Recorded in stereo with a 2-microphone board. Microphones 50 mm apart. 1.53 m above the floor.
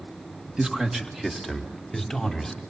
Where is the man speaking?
15° right (ahead or behind), 2 m; by 2.6 s 5° left (ahead or behind), 4 m.